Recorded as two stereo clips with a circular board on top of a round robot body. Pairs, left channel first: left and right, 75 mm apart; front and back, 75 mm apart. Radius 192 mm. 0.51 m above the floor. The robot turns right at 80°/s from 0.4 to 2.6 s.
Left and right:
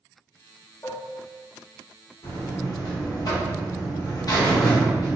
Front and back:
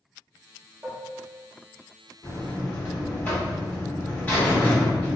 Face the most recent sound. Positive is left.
turn(degrees=65)